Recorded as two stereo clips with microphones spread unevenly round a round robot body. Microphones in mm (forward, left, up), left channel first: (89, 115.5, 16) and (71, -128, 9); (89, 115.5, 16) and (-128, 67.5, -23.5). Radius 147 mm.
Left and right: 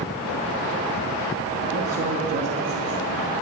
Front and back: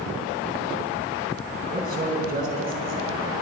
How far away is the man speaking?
About 4 m.